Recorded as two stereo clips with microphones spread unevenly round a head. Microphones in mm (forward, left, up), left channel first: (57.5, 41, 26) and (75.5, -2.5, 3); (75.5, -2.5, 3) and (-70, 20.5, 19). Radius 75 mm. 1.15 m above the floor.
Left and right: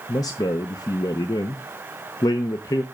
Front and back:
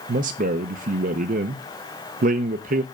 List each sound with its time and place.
0.1 s a man speaking: 135° left, 0.7 m